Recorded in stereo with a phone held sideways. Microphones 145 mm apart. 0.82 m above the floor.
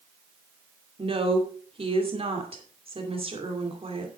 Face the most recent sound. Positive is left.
turn(degrees=-40)  # may be behind; listen again after turning